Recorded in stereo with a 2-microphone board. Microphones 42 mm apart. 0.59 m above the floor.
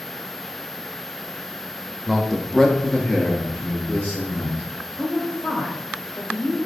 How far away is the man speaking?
About 0.8 m.